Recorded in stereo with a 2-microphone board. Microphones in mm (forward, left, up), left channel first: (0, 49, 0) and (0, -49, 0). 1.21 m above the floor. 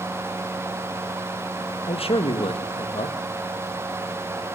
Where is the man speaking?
75° left (ahead or behind), 1.8 m.